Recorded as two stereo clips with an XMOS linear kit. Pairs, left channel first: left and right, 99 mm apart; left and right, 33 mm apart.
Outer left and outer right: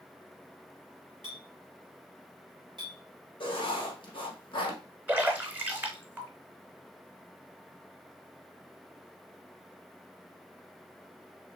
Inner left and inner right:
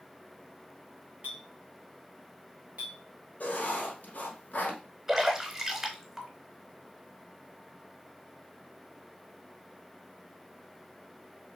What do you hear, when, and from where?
1.2 s a clink: 50° right (ahead or behind), 1.6 m
3.4 s writing: 50° left (ahead or behind), 1.1 m
5.1 s a splash: 15° right (ahead or behind), 0.9 m